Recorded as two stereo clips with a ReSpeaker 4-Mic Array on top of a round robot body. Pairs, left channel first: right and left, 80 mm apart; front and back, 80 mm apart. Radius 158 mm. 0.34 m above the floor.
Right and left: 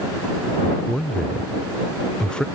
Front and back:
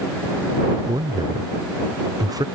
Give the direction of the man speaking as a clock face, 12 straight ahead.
6 o'clock.